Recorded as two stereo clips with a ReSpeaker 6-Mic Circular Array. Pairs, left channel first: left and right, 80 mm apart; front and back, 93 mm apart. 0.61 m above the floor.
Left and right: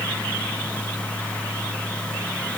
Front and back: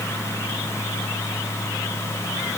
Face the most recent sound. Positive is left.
No sound to turn to.